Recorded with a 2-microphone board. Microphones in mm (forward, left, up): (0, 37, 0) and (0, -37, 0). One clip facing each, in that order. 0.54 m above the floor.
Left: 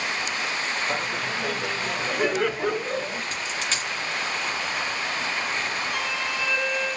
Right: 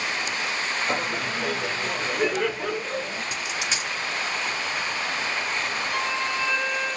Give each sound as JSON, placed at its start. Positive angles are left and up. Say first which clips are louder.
{"t": 0.9, "sound": "laughter", "louder": "right 1 dB", "side_deg": -25, "distance_m": 0.7}
{"t": 3.3, "sound": "a dropped coin", "louder": "even", "side_deg": -15, "distance_m": 1.3}
{"t": 5.9, "sound": "a violin", "louder": "right 2 dB", "side_deg": -45, "distance_m": 1.6}